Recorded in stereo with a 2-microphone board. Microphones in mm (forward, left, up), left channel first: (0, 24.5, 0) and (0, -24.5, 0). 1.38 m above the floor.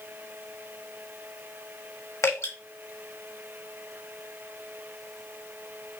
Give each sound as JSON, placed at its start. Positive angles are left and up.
{"t": 2.2, "sound": "dripping", "side_deg": 85, "distance_m": 1.5}